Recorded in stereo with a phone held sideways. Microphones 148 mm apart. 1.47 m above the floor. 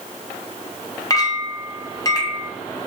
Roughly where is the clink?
Left.